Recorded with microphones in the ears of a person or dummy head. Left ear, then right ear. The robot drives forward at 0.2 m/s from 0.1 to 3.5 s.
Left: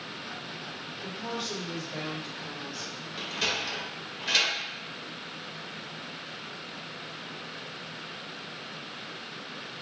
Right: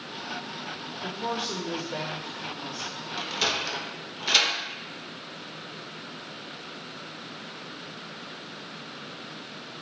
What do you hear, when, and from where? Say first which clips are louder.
1.0 s a woman speaking: right 5 dB; 30° right (ahead or behind), 0.6 m; by 3.1 s 20° right (ahead or behind), 1.0 m
3.2 s a sliding door: right 2 dB; 10° right (ahead or behind), 0.5 m; by 4.5 s 15° right (ahead or behind), 0.5 m